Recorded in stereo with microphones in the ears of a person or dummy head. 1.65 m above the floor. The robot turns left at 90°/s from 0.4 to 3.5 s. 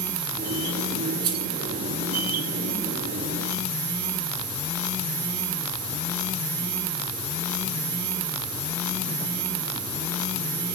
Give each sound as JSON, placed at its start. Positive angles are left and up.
{"t": 1.2, "sound": "keys jangling", "side_deg": -20, "distance_m": 5.5}